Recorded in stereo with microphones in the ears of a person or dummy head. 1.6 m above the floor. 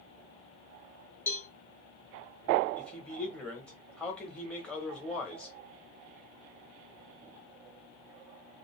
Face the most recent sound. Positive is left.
turn(degrees=5)  # may be behind; listen again after turning